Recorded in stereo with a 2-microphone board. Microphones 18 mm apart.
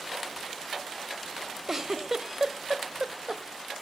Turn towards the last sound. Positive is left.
turn(degrees=-35)  # may be behind; listen again after turning